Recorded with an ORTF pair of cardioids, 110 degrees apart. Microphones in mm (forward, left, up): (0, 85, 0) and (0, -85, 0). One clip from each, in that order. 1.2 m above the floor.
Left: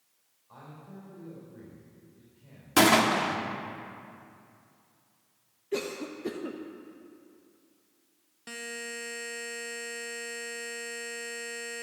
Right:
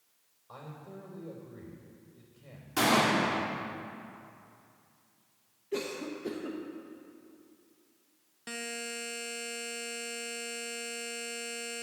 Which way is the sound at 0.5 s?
55° right.